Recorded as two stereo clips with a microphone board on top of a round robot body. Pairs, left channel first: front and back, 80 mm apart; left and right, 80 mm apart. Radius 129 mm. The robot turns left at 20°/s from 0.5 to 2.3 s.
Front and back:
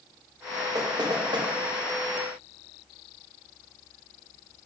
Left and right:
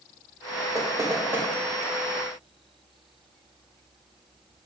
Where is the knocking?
140° right, 1.3 m; by 1.5 s 155° right, 1.3 m.